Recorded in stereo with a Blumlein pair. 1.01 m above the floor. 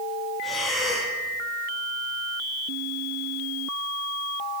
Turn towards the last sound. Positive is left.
turn(degrees=15)